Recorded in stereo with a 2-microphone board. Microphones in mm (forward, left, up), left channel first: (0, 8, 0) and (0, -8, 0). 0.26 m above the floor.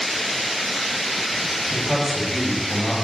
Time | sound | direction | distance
1.7 | a man speaking | 15° right (ahead or behind) | 2 m